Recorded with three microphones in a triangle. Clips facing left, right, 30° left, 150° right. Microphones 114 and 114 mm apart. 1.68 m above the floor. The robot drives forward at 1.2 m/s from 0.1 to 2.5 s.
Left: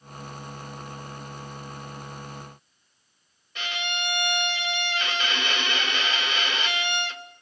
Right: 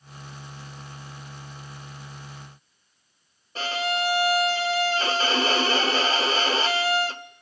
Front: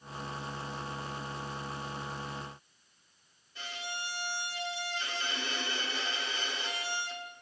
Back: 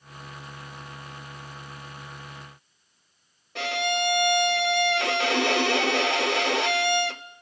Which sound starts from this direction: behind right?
A violin, at 3.5 s.